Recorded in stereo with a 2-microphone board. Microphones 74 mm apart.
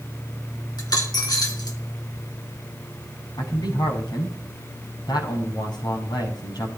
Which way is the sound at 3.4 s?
75° left (ahead or behind).